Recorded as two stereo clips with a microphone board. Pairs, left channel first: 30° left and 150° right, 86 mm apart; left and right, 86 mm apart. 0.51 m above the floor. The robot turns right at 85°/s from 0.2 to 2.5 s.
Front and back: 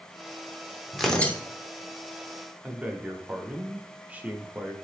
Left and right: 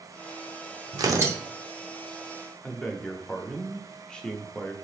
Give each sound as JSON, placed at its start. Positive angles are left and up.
{"t": 0.9, "sound": "tearing paper", "azimuth_deg": -65, "distance_m": 0.6}
{"t": 2.6, "sound": "a man speaking", "azimuth_deg": 155, "distance_m": 0.7}